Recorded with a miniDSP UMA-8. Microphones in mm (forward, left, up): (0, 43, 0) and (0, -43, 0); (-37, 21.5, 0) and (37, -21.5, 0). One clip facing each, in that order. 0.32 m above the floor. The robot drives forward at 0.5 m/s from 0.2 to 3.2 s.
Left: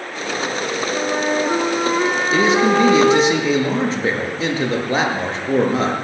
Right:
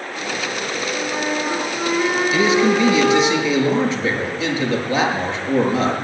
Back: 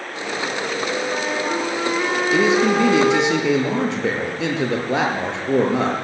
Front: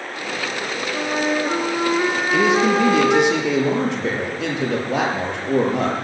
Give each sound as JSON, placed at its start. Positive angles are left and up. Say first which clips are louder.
{"t": 0.9, "sound": "a flute", "louder": "left 4 dB, front 2 dB", "azimuth_deg": 40, "distance_m": 5.5}
{"t": 2.3, "sound": "a man speaking", "louder": "left 2 dB, even", "azimuth_deg": 140, "distance_m": 6.5}